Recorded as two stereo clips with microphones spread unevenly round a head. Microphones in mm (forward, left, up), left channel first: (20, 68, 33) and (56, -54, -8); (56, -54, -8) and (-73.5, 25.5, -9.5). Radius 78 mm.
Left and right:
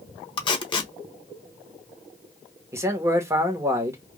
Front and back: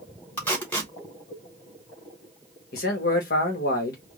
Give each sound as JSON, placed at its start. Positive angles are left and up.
{"t": 0.4, "sound": "tape being pulled", "azimuth_deg": 50, "distance_m": 1.0}
{"t": 2.7, "sound": "a man speaking", "azimuth_deg": -25, "distance_m": 1.3}